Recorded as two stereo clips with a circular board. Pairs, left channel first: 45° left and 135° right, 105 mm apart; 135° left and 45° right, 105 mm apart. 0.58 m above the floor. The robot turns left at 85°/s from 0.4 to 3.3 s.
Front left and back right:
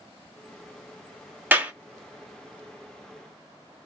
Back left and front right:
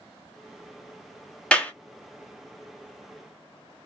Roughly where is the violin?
I don't hear a violin.